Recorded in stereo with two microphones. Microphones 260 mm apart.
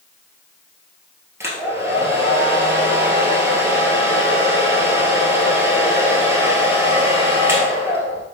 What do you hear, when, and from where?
1.4 s a hair dryer: 10° right (ahead or behind), 1.1 m